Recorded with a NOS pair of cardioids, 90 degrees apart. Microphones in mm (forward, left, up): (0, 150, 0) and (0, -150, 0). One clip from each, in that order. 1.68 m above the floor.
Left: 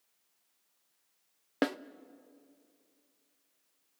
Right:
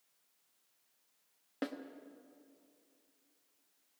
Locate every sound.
1.6 s a snare drum: 55° left, 0.6 m